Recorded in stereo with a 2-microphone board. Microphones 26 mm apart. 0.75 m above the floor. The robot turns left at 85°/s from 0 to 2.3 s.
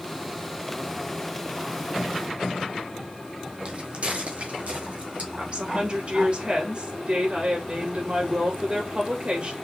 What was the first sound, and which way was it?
Footsteps, 40° right (ahead or behind).